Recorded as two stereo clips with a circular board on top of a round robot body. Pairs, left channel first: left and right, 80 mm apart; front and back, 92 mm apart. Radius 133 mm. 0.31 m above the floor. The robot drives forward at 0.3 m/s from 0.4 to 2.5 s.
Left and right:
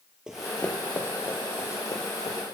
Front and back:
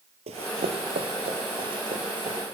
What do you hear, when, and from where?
0.3 s running footsteps: 170° right, 0.6 m; by 2.4 s 145° left, 1.9 m